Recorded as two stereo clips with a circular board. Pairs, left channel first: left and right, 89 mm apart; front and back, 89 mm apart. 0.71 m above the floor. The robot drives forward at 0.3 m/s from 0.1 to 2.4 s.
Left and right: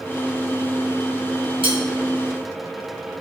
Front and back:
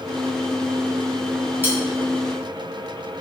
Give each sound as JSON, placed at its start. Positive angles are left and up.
{"t": 1.6, "sound": "cutlery clinking", "azimuth_deg": -115, "distance_m": 1.1}